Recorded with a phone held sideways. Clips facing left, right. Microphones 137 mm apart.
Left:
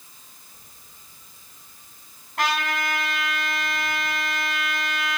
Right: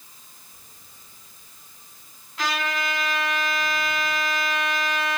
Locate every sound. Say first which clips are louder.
2.4 s a trumpet: left 2 dB; 55° left (ahead or behind), 7 m